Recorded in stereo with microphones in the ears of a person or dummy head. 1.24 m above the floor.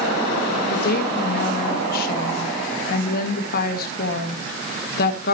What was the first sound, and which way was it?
A woman speaking, 55° left (ahead or behind).